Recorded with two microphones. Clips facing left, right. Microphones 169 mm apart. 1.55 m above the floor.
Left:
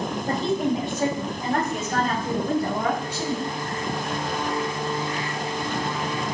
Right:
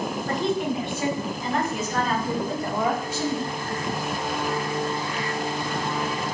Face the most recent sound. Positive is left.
turn(degrees=75)  # may be behind; listen again after turning